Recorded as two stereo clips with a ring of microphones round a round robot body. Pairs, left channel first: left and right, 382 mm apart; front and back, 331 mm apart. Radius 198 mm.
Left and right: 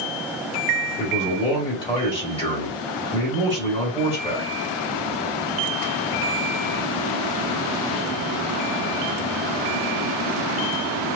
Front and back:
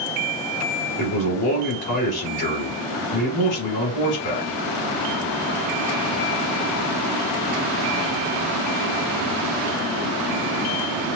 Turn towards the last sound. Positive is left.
turn(degrees=15)